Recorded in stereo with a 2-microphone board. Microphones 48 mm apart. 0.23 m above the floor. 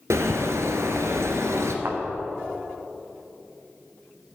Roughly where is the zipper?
I don't hear a zipper.